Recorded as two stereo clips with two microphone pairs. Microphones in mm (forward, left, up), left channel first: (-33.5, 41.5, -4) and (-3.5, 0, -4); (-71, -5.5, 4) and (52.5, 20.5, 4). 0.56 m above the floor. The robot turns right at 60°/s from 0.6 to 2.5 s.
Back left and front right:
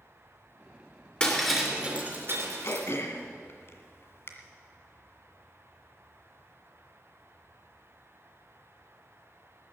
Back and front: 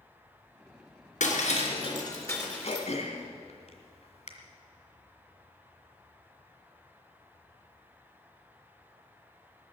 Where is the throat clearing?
160° left, 1.8 m.